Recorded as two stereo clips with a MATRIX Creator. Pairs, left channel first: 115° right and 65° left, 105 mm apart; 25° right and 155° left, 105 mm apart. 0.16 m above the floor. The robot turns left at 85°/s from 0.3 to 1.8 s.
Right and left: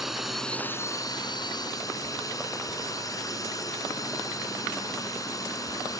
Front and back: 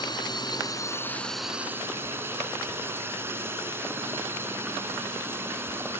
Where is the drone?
20° right; by 6.0 s 145° right.